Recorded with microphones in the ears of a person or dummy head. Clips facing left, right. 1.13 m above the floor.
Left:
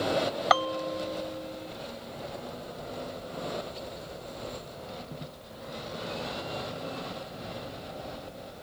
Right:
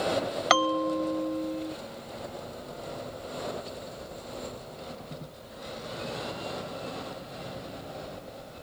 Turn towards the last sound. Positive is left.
turn(degrees=-35)  # may be behind; listen again after turning